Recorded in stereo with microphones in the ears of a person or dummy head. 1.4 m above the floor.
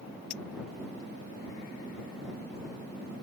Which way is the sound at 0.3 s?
35° left (ahead or behind).